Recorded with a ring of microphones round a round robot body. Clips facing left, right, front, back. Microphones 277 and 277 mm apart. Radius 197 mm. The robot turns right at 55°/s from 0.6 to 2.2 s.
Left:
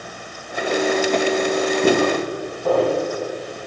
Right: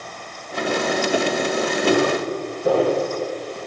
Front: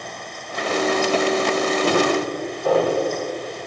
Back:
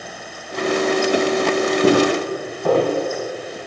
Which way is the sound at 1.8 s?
165° left.